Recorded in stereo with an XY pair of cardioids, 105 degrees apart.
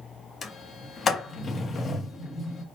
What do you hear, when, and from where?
0.4 s a sliding door: 45° left, 1.1 m